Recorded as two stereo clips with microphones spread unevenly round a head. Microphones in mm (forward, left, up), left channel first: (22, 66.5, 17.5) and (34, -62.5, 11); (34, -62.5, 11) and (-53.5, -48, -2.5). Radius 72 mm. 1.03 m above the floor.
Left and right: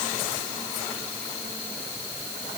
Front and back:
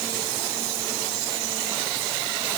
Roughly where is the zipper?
No zipper in this recording.